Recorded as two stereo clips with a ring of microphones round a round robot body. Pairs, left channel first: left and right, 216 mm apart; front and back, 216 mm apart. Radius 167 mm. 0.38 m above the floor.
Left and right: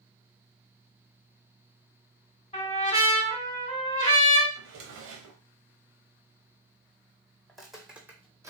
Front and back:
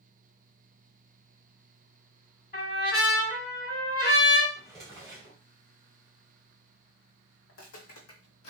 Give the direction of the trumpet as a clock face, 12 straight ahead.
11 o'clock.